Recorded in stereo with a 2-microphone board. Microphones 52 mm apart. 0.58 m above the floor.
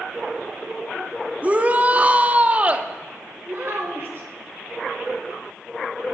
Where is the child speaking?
45° right (ahead or behind), 1.3 m.